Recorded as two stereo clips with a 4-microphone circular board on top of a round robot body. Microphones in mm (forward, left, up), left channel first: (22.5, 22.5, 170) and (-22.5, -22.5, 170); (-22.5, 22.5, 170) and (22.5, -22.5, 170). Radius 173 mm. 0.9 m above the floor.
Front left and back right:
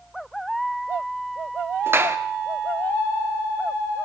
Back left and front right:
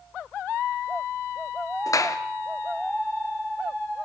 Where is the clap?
170° left, 1.8 m.